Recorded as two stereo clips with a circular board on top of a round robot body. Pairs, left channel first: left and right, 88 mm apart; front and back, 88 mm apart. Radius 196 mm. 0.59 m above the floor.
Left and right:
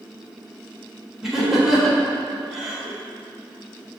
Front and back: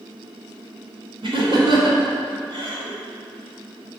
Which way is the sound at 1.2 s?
175° right.